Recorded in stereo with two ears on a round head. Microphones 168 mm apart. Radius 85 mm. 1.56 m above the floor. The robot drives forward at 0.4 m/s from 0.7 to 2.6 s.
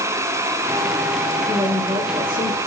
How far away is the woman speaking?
About 3 m.